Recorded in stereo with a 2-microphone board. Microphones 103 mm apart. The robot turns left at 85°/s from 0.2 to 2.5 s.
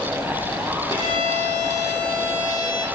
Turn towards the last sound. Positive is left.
turn(degrees=-170)